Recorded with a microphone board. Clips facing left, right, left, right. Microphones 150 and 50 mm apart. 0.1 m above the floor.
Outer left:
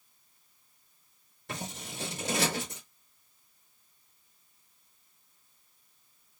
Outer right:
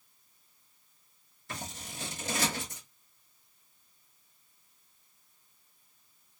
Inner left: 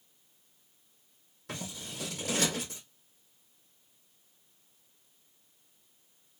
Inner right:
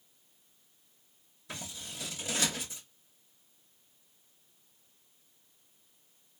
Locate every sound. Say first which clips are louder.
1.5 s scissors: outer left 3 dB, inner left 3 dB; 70° left (ahead or behind), 3 m